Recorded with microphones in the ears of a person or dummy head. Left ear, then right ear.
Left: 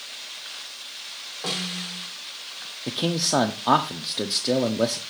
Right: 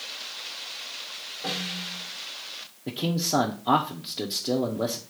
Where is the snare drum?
60° left (ahead or behind), 2.5 m.